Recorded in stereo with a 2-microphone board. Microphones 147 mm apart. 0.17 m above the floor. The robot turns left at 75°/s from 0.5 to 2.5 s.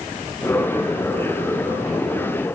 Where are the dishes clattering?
I don't hear dishes clattering.